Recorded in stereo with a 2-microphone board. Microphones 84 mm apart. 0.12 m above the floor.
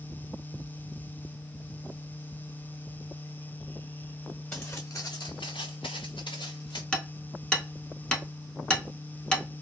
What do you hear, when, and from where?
4.5 s footsteps: 20° left (ahead or behind), 0.7 m; by 6.8 s 60° left (ahead or behind), 1.2 m
6.9 s hammering: 10° left (ahead or behind), 0.6 m